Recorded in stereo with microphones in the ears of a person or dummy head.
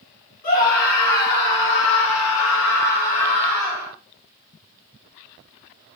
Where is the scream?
45° left (ahead or behind), 1.4 m; by 3.9 s 20° left (ahead or behind), 1.0 m.